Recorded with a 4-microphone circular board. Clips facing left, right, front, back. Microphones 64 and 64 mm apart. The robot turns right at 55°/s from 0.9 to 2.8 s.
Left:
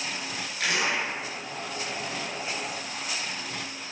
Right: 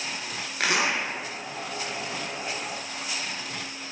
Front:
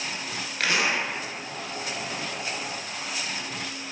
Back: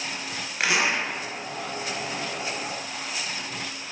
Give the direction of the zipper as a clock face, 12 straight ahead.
4 o'clock.